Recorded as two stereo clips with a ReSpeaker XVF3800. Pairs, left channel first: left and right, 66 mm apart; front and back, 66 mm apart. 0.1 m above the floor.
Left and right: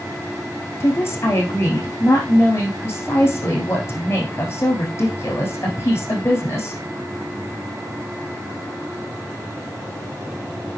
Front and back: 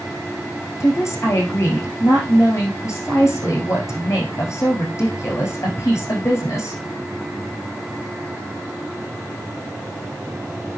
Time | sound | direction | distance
0.8 | a woman speaking | 40° left | 6 m